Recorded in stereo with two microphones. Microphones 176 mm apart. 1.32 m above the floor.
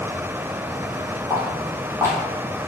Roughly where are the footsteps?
Centre.